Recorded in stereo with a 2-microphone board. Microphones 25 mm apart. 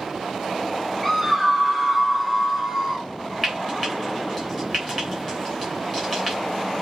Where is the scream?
Centre (ahead or behind), 3 m; by 3.1 s 15° right (ahead or behind), 3 m.